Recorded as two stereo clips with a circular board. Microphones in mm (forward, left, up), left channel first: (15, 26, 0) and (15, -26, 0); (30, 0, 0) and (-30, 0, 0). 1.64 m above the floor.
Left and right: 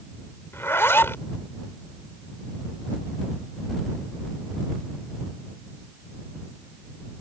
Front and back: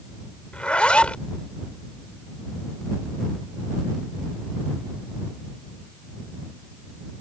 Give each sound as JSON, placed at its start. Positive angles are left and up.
{"t": 0.5, "sound": "a zipper", "azimuth_deg": 65}